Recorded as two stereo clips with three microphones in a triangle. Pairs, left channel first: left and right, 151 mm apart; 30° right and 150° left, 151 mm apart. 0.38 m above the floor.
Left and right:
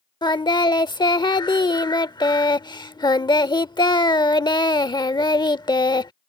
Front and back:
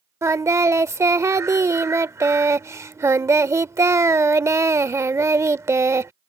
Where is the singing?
100° left.